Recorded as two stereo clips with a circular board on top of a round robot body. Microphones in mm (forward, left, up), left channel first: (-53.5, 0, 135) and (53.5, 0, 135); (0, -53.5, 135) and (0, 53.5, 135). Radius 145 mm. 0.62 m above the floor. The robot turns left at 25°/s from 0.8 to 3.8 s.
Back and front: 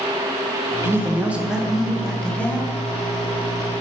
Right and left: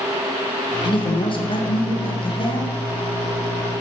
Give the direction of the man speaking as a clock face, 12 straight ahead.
2 o'clock.